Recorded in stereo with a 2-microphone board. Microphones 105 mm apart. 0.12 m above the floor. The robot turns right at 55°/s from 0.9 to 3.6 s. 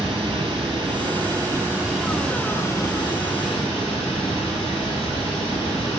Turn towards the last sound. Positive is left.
turn(degrees=80)